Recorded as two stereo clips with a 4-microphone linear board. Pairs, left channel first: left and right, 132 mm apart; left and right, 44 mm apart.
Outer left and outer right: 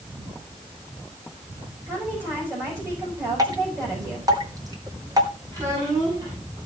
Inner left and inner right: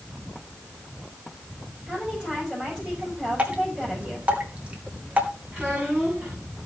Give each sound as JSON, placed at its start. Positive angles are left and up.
{"t": 1.9, "sound": "a woman speaking", "side_deg": -20, "distance_m": 6.0}
{"t": 3.4, "sound": "dripping", "side_deg": -30, "distance_m": 2.5}
{"t": 5.5, "sound": "a child speaking", "side_deg": -30, "distance_m": 7.0}